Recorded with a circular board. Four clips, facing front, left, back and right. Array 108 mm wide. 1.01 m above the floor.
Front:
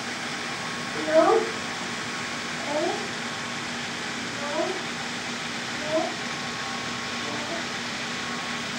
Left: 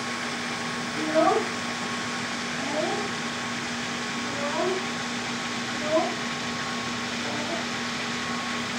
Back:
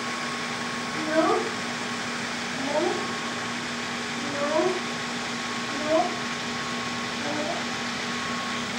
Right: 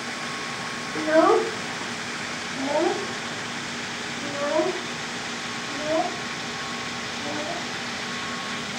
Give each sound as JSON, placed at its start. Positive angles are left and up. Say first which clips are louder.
{"t": 0.9, "sound": "a child speaking", "louder": "right 4 dB, front 4 dB", "azimuth_deg": -75, "distance_m": 2.0}